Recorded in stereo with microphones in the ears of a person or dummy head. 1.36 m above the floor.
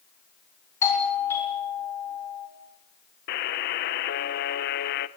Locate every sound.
0.8 s a doorbell: 15° left (ahead or behind), 7 m
3.3 s a buzzer: 45° left (ahead or behind), 1.3 m